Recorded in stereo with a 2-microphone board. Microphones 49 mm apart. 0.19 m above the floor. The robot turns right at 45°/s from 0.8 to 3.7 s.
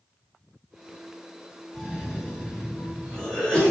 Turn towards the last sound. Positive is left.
turn(degrees=15)  # may be behind; listen again after turning